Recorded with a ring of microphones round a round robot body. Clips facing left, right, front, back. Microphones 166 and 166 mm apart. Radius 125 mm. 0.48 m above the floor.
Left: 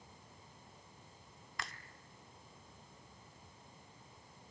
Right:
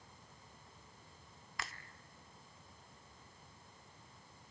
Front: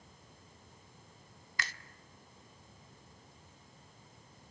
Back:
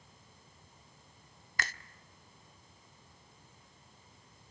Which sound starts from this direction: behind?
A finger snap, at 1.6 s.